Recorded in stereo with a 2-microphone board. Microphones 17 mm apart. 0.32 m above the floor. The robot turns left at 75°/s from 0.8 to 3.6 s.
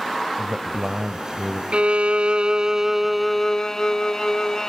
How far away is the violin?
About 0.6 m.